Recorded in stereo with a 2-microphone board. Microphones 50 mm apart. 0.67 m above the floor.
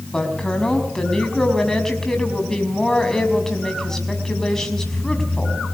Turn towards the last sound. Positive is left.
turn(degrees=10)  # may be behind; listen again after turning